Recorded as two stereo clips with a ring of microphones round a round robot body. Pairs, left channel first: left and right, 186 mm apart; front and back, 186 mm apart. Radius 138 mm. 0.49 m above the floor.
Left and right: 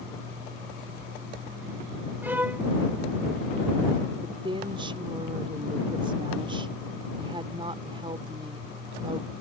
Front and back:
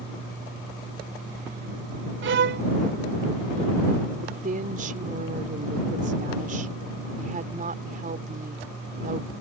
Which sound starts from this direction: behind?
A violin, at 2.2 s.